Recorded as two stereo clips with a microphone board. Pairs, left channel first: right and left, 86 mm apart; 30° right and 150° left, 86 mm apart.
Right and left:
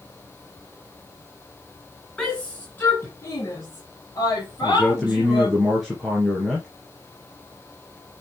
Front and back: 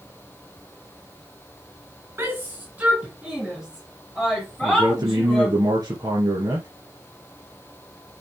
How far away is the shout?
About 2 m.